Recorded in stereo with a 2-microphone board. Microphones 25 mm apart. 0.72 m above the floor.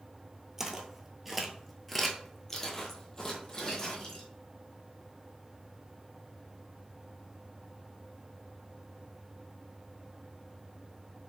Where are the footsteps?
20° right (ahead or behind), 0.9 m; by 4.3 s 25° left (ahead or behind), 1.8 m.